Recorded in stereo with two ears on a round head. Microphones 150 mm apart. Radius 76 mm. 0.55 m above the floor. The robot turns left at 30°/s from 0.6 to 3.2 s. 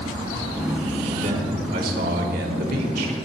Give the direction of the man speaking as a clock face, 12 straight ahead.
2 o'clock.